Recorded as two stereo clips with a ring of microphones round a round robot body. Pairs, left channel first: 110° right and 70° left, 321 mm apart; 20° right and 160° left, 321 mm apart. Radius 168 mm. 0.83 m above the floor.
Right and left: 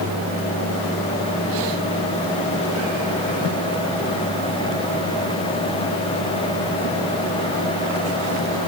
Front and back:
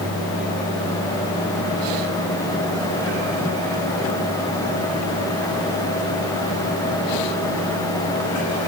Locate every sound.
Only background noise.